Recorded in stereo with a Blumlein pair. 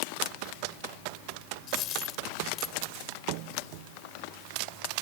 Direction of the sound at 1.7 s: 30° left.